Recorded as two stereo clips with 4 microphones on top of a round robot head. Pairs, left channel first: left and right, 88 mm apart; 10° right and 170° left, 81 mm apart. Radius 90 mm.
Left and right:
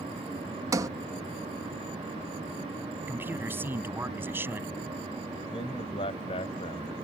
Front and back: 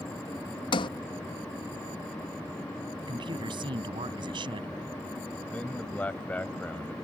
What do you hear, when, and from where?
0.7 s a sliding door: 35° right
3.0 s a man speaking: 155° right
5.5 s a man speaking: 60° left